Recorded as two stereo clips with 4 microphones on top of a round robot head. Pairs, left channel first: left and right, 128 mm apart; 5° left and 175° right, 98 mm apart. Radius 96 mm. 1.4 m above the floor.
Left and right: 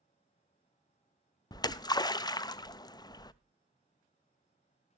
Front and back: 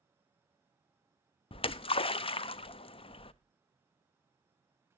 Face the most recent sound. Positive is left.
turn(degrees=30)